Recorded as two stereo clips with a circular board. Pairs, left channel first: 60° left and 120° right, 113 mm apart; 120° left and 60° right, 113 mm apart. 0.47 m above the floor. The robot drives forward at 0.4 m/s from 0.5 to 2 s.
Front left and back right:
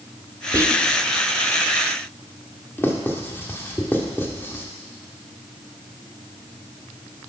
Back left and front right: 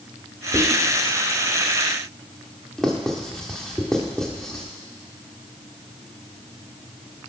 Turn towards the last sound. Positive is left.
turn(degrees=45)